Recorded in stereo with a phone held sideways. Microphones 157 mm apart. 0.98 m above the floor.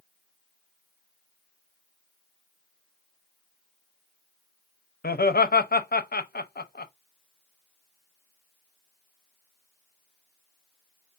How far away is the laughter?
About 0.6 m.